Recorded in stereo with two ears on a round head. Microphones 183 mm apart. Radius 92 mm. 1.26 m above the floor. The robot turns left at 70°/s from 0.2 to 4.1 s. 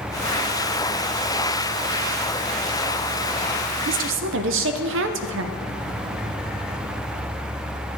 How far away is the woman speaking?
About 0.5 m.